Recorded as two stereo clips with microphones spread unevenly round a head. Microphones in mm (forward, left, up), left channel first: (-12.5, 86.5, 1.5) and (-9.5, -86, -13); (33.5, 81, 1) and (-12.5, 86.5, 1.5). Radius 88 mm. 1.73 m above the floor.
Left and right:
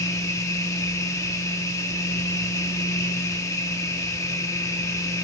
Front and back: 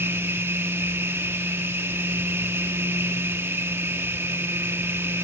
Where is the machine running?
160° left, 2 m.